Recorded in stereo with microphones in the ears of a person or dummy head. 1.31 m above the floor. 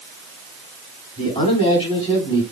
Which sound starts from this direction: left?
A man speaking, at 1.2 s.